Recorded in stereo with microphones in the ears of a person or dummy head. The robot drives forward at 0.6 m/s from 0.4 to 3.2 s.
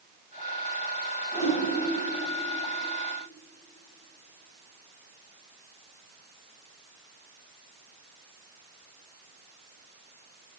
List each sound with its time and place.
1.3 s a whoosh: 15° right (ahead or behind), 1.7 m